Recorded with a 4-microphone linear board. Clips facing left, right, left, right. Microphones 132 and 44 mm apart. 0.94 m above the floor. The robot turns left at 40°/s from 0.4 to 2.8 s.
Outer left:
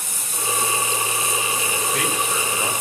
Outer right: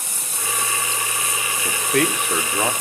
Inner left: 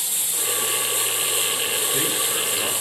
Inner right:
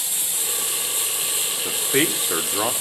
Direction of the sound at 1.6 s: 50° right (ahead or behind).